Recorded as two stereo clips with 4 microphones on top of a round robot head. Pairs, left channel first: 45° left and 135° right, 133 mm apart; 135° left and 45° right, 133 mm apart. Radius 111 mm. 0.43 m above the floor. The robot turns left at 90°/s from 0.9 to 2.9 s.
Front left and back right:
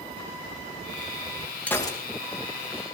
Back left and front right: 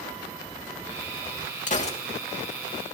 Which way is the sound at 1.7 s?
125° left.